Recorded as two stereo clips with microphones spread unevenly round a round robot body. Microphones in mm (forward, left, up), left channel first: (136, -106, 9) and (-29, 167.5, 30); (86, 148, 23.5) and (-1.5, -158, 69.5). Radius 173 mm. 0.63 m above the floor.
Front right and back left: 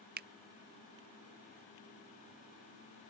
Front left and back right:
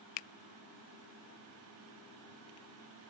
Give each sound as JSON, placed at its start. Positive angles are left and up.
{"t": 0.2, "sound": "a finger snap", "azimuth_deg": 60}